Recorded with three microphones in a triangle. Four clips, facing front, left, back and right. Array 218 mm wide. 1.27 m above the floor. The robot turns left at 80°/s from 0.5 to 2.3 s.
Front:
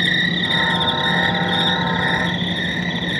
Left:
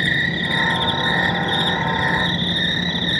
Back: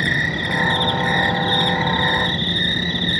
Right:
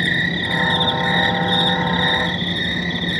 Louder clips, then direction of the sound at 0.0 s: Right 1 dB, front 1 dB; straight behind.